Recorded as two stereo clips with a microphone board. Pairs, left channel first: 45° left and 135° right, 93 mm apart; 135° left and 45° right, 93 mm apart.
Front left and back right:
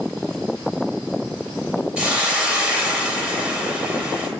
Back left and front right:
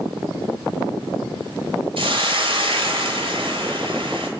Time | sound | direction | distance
2.0 | a hiss | 55° right | 0.9 m